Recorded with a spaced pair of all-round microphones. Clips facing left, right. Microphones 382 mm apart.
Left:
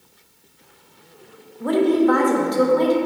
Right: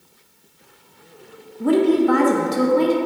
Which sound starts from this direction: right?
A woman speaking, at 1.6 s.